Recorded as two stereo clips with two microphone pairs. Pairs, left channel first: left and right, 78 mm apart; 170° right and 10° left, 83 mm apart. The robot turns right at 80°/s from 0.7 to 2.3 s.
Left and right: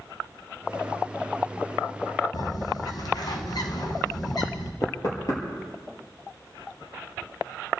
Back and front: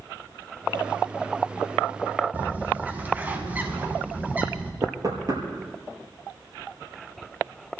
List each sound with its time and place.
2.3 s a bird: 75° left, 2 m
4.8 s knocking: 50° left, 6.5 m